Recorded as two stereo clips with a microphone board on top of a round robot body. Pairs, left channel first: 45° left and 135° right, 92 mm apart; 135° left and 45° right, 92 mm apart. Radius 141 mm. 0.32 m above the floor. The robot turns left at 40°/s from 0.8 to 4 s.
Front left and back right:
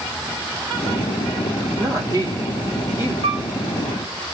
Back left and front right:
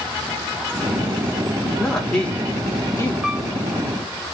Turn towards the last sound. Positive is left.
turn(degrees=-160)